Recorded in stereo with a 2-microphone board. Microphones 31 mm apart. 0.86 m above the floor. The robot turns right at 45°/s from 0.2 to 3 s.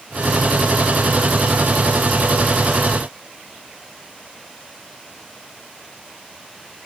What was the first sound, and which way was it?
Only background noise.